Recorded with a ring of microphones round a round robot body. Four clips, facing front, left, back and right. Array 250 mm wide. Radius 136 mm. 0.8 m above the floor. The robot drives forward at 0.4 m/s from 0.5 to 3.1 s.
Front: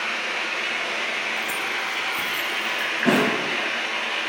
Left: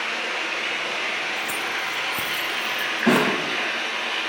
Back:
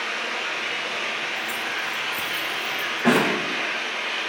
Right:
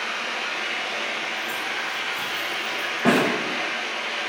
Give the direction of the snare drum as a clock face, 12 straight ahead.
4 o'clock.